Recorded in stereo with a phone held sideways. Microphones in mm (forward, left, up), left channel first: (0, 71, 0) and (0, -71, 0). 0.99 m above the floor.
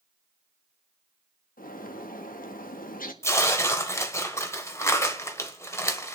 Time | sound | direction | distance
1.6 | a bird | 80° left | 1.1 m
3.2 | tearing paper | 20° left (ahead or behind) | 1.2 m